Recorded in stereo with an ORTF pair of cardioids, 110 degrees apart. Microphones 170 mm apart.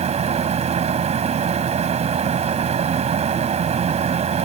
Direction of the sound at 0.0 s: 40° right.